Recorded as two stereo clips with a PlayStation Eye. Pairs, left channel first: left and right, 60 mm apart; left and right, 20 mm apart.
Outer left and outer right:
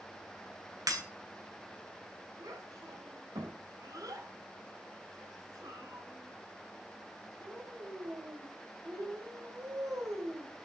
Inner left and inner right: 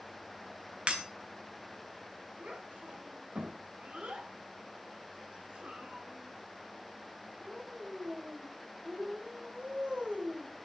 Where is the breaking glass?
80° right, 4 m.